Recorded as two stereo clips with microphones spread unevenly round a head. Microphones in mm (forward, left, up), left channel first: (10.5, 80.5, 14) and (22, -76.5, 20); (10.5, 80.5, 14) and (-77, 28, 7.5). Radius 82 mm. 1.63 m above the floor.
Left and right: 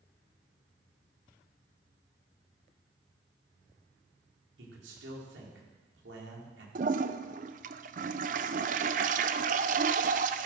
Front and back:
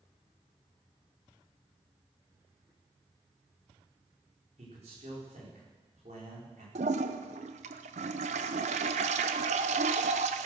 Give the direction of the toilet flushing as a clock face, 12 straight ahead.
4 o'clock.